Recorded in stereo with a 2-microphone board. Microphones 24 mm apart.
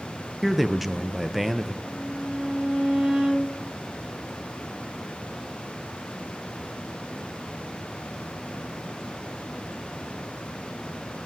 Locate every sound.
0.4 s a man speaking: 5° right (ahead or behind), 0.5 m
1.8 s a violin: 35° right (ahead or behind), 4 m